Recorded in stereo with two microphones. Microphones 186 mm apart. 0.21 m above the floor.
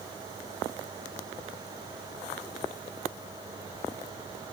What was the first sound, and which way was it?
Only background noise.